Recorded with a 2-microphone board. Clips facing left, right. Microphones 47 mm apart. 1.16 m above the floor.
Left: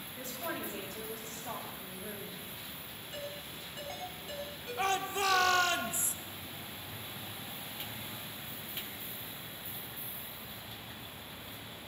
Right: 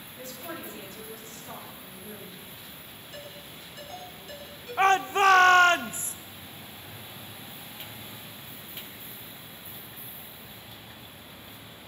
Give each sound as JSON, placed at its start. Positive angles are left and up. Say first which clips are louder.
{"t": 0.2, "sound": "a woman speaking", "louder": "even", "side_deg": 65, "distance_m": 7.5}
{"t": 3.1, "sound": "a ringtone", "louder": "left 1 dB", "side_deg": 25, "distance_m": 7.0}
{"t": 4.8, "sound": "a shout", "louder": "right 11 dB", "side_deg": -45, "distance_m": 0.7}